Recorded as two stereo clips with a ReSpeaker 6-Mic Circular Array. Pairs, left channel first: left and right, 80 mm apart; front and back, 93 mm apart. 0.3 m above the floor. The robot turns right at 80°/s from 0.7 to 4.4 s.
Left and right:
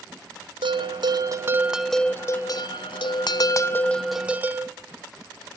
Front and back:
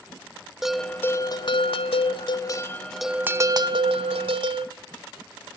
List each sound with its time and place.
0.6 s a bell: 95° right, 0.7 m; by 4.7 s 160° right, 0.7 m